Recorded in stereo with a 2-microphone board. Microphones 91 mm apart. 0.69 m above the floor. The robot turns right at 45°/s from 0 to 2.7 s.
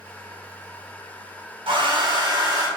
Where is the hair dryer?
90° right, 1.2 m; by 2.7 s 45° right, 1.2 m.